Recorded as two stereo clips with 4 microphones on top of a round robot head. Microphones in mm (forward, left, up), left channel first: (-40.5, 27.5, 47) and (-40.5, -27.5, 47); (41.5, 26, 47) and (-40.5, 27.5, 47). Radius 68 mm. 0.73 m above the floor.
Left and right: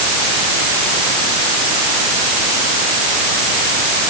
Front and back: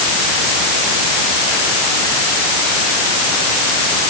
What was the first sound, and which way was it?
Only background noise.